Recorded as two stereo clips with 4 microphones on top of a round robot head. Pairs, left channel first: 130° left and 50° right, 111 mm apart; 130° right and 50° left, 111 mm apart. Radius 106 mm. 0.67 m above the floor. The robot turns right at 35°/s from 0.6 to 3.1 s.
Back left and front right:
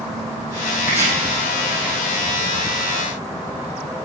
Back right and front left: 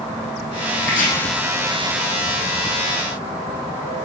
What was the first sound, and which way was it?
Chopping, 130° right.